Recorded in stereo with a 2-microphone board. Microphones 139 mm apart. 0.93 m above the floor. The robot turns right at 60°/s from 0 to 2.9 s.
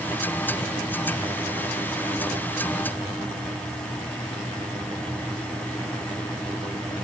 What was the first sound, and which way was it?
Only background noise.